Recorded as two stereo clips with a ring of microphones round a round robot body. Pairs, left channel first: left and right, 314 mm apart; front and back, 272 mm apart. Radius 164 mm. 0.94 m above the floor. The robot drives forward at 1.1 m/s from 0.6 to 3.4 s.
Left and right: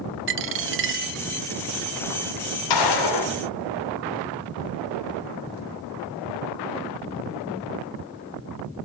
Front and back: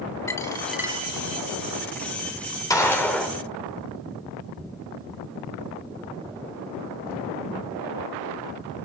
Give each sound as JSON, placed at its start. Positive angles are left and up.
{"t": 0.3, "sound": "a dropped coin", "azimuth_deg": -75, "distance_m": 0.9}
{"t": 2.7, "sound": "a gunshot", "azimuth_deg": 80, "distance_m": 4.0}